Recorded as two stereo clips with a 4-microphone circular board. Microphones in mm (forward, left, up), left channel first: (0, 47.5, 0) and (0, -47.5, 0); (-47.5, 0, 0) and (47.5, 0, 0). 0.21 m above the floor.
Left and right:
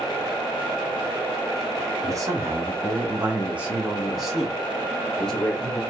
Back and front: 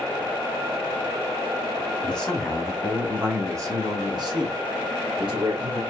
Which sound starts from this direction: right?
A man speaking, at 2.0 s.